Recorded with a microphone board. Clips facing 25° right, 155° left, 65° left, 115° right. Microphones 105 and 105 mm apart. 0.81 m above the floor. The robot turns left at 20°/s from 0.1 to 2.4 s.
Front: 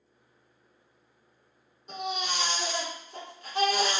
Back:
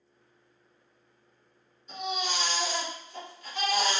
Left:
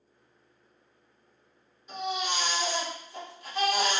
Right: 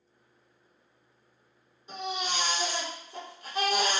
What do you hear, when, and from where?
1.9 s a baby crying: 50° right, 1.8 m; by 4.0 s 60° right, 1.8 m